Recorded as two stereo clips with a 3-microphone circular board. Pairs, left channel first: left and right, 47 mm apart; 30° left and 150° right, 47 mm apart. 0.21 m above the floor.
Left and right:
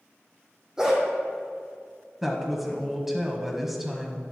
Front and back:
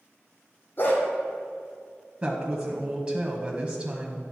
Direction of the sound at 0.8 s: 15° right.